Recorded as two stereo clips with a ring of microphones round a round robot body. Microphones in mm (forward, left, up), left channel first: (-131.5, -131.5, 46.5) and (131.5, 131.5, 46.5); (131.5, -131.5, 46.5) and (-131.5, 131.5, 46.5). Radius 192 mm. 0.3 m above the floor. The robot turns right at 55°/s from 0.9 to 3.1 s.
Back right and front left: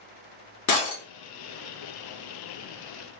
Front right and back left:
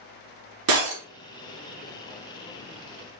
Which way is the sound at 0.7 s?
Straight behind.